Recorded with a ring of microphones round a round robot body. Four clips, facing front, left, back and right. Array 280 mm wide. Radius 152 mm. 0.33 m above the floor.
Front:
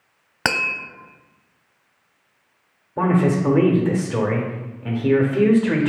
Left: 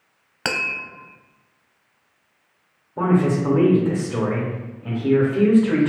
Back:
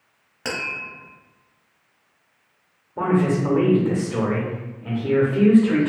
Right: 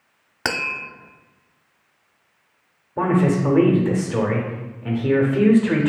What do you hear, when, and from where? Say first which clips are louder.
0.5 s tapping: right 1 dB, front 6 dB; 10° right, 0.6 m
3.0 s a man speaking: even, front 1 dB; 40° right, 0.9 m